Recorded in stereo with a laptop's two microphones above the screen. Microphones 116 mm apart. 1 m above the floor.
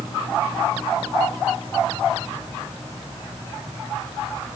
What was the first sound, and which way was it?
Only background noise.